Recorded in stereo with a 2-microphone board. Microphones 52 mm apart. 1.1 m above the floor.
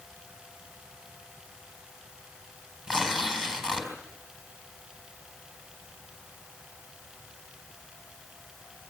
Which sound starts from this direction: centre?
Tearing paper, at 2.9 s.